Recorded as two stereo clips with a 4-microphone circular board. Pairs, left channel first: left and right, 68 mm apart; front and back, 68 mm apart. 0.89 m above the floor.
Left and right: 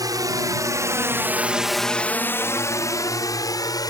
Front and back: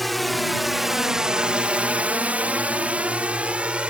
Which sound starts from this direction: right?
A drone, at 0.0 s.